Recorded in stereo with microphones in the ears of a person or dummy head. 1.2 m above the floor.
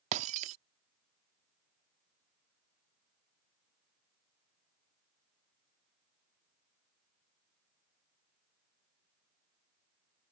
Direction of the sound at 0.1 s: 45° right (ahead or behind).